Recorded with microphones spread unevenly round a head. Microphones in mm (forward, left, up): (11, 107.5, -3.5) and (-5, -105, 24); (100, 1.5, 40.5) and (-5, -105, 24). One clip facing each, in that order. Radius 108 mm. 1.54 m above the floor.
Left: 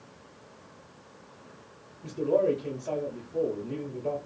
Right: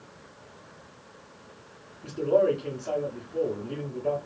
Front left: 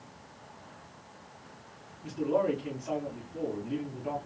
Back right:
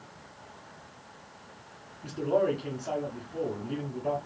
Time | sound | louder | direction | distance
2.0 | a man speaking | right 2 dB, back right 2 dB | 175° right | 1.1 m